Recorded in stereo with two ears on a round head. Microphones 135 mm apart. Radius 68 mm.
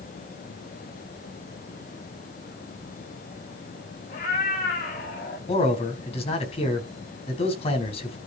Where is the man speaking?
40° left (ahead or behind), 4 m.